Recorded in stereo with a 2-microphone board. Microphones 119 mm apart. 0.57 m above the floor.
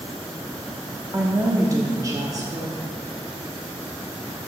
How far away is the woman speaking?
About 0.8 m.